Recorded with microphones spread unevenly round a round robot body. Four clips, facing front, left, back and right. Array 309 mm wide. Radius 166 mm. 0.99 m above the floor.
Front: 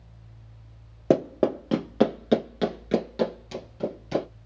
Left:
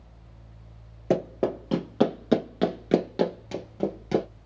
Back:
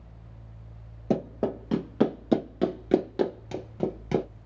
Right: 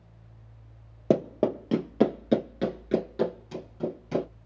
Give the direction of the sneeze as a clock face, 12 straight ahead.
I don't hear a sneeze.